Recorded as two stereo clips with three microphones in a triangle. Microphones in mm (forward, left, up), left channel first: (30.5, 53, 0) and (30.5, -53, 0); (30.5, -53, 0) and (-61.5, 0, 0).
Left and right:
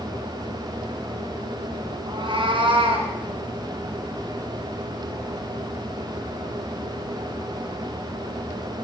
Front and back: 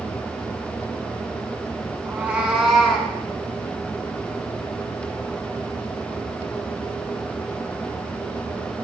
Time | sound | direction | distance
2.1 | a cat meowing | 130° right | 1.9 m